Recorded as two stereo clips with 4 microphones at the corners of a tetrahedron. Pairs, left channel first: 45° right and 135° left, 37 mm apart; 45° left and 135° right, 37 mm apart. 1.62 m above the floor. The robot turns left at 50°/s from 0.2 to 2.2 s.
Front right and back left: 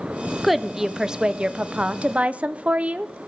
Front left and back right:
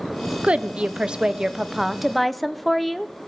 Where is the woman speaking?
135° right, 0.5 m; by 3.1 s 135° left, 0.5 m.